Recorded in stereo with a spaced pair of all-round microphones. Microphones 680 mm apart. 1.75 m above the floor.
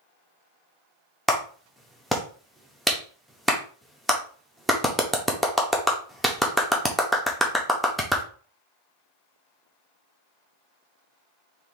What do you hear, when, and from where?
1.3 s a clap: centre (ahead or behind), 0.8 m